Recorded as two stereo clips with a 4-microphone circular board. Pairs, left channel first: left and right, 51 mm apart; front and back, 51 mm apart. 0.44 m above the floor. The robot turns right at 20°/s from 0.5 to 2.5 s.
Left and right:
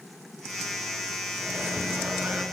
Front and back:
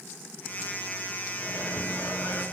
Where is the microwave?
45° right, 5.5 m; by 2.4 s 25° right, 5.5 m.